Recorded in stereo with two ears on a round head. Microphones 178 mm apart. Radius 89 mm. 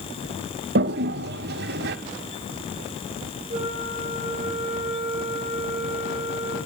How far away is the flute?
About 9.5 m.